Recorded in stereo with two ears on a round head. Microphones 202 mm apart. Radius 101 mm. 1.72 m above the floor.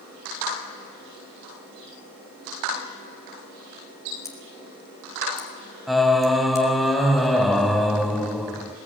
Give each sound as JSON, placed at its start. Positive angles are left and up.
{"t": 4.2, "sound": "scissors", "side_deg": 15, "distance_m": 5.0}
{"t": 5.9, "sound": "singing", "side_deg": 0, "distance_m": 2.5}